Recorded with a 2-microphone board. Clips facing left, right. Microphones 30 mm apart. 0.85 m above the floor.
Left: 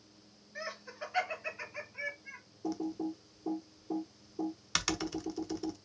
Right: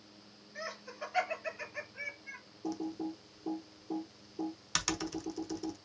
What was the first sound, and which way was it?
Laughter, 10° left (ahead or behind).